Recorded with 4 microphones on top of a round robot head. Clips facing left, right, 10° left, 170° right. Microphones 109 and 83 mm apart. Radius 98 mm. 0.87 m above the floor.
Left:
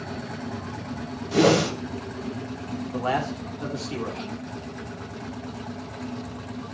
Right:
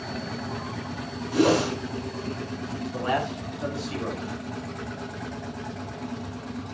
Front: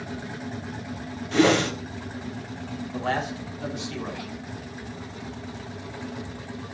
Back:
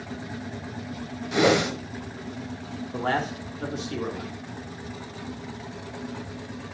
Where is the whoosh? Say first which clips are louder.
Left 2 dB, front 1 dB; 115° left, 2.5 m.